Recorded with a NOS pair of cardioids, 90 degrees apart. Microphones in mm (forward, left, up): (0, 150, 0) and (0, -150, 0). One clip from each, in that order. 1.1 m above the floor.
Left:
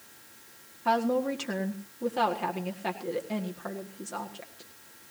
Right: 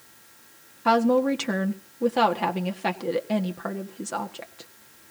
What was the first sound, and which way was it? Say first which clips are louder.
A woman speaking: right 6 dB; 45° right.